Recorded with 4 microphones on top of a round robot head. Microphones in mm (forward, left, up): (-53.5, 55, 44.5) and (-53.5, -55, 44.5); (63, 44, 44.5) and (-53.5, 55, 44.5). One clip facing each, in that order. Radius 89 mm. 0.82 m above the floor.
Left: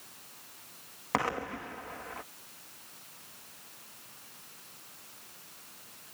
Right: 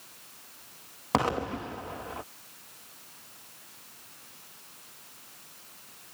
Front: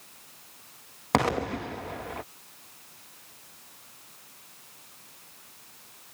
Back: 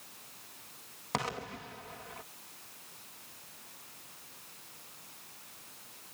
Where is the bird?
No bird in this recording.